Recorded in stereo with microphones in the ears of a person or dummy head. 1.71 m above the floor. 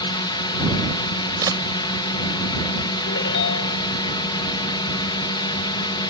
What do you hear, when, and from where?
0.0 s a drone: 25° left (ahead or behind)
1.4 s a camera shutter: 20° right (ahead or behind)
3.1 s a ringtone: 65° left (ahead or behind)